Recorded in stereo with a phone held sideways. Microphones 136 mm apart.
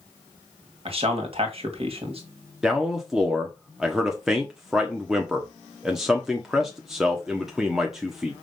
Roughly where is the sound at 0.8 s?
Right.